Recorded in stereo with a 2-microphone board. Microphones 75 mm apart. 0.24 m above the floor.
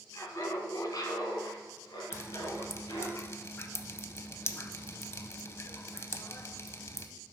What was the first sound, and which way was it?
Laughter, 40° left (ahead or behind).